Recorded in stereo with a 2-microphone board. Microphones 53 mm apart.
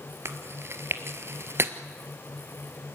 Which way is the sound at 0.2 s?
50° right (ahead or behind).